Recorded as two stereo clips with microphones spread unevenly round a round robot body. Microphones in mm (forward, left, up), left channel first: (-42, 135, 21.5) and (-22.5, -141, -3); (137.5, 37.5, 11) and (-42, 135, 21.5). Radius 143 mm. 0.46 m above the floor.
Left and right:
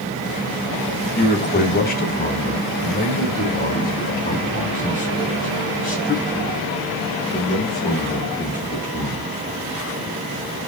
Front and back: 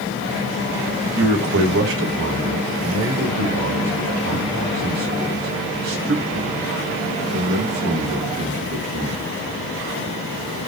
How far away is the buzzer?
No buzzer in this recording.